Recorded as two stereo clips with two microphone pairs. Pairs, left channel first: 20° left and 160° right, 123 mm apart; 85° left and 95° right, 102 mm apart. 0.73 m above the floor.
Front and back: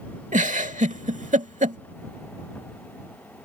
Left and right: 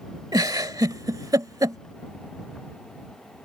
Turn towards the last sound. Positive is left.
turn(degrees=-145)